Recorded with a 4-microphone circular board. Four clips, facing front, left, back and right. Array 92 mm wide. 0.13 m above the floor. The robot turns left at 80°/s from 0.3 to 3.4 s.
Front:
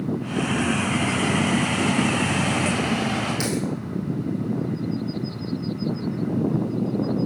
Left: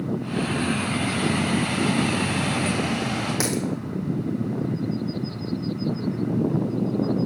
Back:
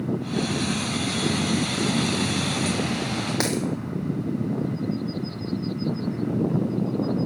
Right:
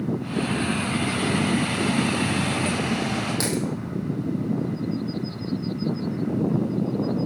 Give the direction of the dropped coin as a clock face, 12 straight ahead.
6 o'clock.